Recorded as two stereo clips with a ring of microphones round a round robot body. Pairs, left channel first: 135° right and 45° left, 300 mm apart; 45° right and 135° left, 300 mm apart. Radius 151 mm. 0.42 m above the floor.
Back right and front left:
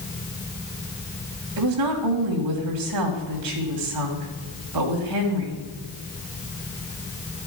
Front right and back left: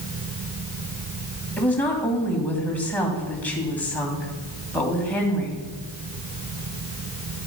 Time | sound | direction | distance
1.6 | a woman speaking | 40° left | 2.5 m